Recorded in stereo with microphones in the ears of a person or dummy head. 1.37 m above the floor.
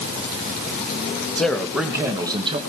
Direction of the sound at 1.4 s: 5° left (ahead or behind).